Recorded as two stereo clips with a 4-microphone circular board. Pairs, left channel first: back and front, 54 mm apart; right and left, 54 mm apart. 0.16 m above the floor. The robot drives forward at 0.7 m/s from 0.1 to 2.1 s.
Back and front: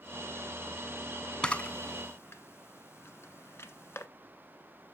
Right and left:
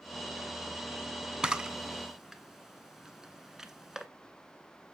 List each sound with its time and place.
1.4 s a camera shutter: 135° left, 0.5 m; by 4.1 s 170° left, 0.8 m